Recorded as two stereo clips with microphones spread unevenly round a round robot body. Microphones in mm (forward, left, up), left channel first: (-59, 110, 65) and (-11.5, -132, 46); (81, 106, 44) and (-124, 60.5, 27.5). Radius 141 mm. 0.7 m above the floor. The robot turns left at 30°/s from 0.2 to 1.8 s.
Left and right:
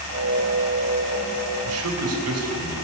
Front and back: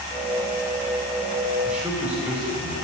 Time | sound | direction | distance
1.6 | a man speaking | 80° right | 2.5 m